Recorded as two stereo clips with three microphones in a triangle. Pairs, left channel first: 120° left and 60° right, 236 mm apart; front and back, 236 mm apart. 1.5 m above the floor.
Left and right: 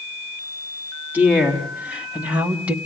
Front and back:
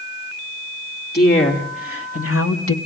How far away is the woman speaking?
About 4 m.